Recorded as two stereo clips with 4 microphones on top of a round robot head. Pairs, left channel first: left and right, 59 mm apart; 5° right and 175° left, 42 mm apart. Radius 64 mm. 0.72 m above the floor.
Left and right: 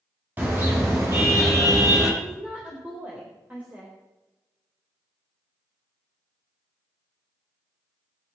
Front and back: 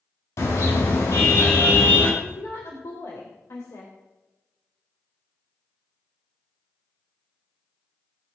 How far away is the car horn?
About 3.5 m.